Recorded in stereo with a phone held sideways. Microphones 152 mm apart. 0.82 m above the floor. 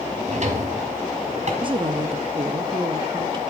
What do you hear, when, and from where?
0.2 s a drawer: 55° right (ahead or behind), 1.8 m
1.6 s a woman speaking: 35° right (ahead or behind), 0.9 m